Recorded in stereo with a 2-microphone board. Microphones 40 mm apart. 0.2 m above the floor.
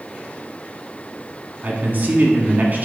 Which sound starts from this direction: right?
A man speaking, at 1.6 s.